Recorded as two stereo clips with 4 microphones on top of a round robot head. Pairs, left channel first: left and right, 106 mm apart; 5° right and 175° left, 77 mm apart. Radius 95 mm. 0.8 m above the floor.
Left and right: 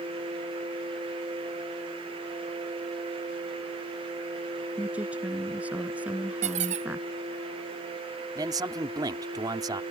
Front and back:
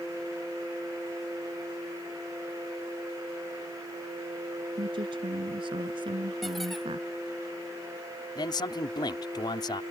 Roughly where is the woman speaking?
Behind.